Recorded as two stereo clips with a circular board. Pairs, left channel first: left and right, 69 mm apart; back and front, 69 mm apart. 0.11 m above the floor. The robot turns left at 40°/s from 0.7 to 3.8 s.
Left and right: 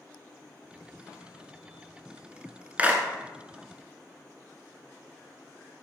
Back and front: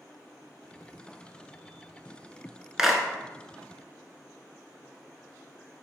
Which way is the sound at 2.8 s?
70° right.